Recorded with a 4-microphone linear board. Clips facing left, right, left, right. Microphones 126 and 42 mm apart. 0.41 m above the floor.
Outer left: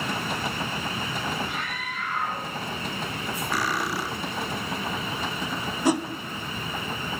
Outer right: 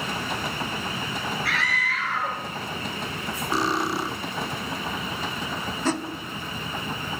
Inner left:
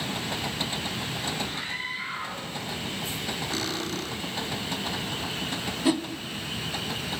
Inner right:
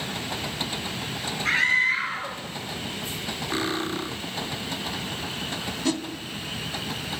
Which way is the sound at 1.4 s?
80° right.